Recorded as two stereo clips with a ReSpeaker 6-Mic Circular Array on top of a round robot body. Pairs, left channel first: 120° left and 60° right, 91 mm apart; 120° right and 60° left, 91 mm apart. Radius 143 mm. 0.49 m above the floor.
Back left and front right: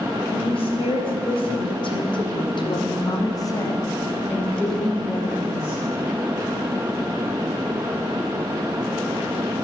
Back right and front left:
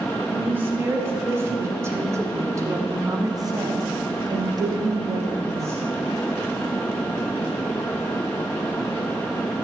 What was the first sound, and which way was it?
A woman speaking, 130° left.